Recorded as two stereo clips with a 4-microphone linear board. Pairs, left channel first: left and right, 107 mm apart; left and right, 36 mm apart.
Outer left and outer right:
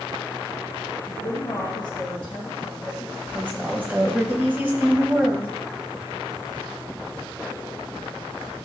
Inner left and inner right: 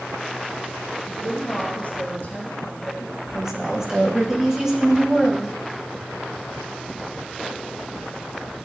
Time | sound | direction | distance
1.1 | a woman speaking | 50° left (ahead or behind) | 3 m
3.0 | a woman speaking | 20° right (ahead or behind) | 2.0 m